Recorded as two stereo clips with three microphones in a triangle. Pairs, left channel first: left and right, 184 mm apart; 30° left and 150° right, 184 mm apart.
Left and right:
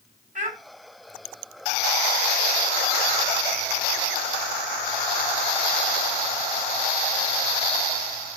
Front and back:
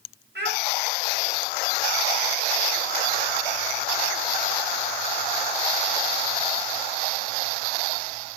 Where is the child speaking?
135° right, 3.5 m.